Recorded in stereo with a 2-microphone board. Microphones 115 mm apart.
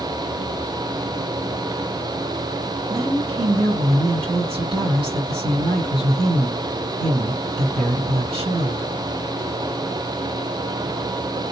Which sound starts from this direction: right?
A woman speaking, at 2.9 s.